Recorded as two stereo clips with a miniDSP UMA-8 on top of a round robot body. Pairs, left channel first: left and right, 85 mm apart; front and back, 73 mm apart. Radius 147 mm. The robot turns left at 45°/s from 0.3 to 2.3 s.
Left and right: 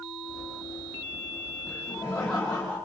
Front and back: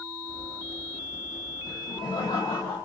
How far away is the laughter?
About 4 m.